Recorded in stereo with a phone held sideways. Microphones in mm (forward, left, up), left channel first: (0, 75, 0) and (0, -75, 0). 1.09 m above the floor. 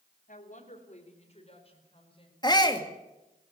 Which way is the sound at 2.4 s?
30° left (ahead or behind).